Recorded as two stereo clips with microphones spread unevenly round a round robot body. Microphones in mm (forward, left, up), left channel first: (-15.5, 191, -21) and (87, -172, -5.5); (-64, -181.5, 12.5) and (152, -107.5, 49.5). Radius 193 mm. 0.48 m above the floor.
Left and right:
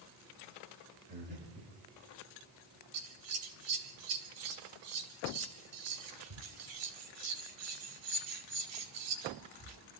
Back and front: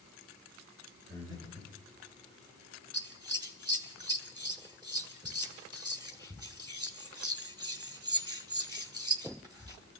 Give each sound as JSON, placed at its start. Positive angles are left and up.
{"t": 1.1, "sound": "breathing", "azimuth_deg": -5, "distance_m": 8.5}
{"t": 2.9, "sound": "scissors", "azimuth_deg": -55, "distance_m": 2.0}